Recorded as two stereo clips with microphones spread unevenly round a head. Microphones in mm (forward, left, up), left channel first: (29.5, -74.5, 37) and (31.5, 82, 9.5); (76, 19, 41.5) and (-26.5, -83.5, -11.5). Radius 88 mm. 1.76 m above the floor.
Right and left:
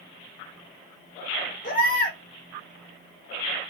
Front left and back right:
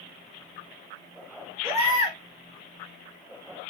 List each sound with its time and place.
1.6 s a baby crying: 65° right, 5.5 m